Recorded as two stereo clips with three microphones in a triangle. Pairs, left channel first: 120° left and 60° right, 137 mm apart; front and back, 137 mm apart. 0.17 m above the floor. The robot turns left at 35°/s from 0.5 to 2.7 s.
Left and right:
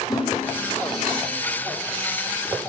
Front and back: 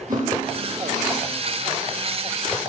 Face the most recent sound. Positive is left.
turn(degrees=105)